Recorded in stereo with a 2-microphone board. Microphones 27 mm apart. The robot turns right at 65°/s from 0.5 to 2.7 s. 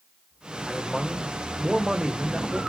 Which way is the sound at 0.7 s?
160° left.